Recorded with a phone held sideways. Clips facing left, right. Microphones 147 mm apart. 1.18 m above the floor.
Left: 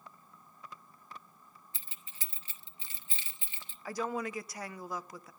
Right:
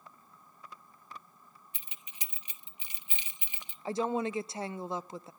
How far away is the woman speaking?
About 0.5 m.